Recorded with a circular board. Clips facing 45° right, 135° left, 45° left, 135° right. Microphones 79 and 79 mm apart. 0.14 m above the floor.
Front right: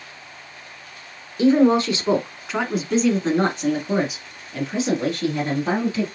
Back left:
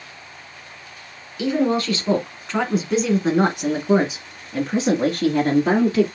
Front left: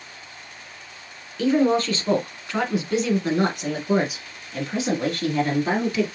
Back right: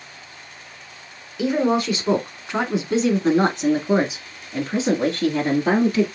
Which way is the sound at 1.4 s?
65° right.